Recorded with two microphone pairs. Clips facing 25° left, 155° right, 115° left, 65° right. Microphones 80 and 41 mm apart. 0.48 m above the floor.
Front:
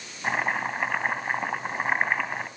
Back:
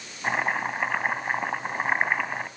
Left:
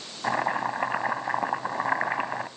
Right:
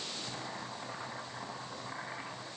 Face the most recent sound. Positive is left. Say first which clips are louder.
# back 1 dB, left 16 dB
turn(degrees=110)